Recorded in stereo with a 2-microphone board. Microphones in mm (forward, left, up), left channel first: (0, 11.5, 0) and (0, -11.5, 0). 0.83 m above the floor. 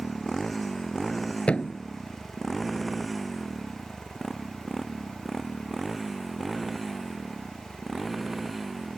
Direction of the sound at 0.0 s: 10° left (ahead or behind).